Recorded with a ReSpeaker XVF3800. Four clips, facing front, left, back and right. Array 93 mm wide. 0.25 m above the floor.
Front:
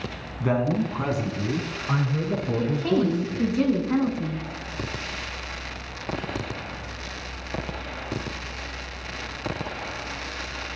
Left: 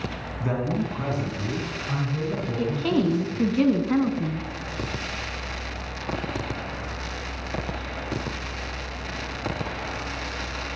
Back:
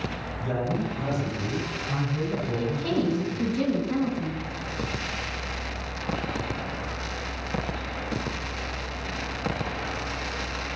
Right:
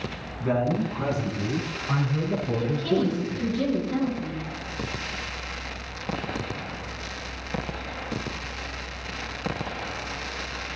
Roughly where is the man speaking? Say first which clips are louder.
Right 2 dB, front 5 dB; ahead.